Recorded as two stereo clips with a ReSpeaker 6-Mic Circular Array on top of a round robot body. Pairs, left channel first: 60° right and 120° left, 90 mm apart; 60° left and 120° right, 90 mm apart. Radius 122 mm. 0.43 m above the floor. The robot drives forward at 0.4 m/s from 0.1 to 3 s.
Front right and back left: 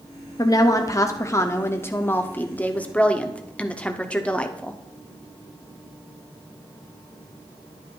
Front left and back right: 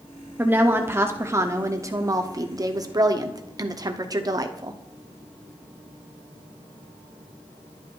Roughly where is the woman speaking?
Ahead right.